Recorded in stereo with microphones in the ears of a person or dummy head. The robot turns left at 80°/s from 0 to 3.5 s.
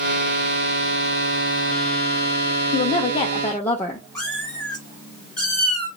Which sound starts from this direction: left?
A woman speaking, at 2.7 s.